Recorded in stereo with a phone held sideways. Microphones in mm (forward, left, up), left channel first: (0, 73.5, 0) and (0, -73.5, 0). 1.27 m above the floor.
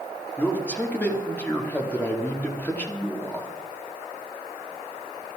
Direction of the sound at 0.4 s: 10° left (ahead or behind).